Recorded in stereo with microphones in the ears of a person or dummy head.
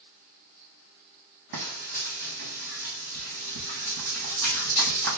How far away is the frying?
About 1.3 m.